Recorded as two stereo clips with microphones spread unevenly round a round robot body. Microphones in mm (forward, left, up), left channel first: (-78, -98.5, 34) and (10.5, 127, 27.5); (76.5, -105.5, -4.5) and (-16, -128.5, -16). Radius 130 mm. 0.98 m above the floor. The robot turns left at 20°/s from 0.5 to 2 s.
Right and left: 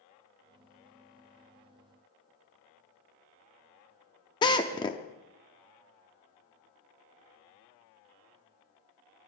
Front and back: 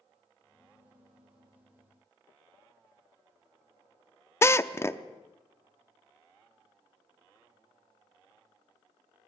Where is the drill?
40° right, 0.6 m.